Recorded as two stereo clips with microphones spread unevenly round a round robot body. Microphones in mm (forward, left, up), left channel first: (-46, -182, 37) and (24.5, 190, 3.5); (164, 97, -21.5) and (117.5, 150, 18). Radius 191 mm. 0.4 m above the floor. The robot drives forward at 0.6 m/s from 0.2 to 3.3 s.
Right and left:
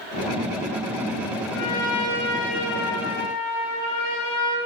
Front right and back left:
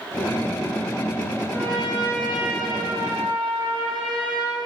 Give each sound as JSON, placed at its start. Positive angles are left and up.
{"t": 1.5, "sound": "a trumpet", "azimuth_deg": -90, "distance_m": 6.0}